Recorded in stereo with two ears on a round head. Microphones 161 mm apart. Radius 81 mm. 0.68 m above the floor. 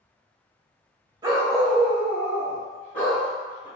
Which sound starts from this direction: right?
A dog barking, at 1.2 s.